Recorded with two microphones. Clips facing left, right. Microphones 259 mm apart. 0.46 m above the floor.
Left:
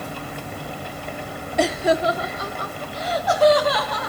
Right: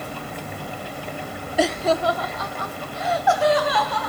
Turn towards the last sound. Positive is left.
turn(degrees=40)  # may be behind; listen again after turning